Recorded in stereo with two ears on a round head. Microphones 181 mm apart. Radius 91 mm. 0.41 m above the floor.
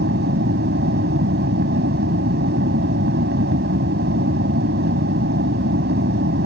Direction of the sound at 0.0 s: 55° right (ahead or behind).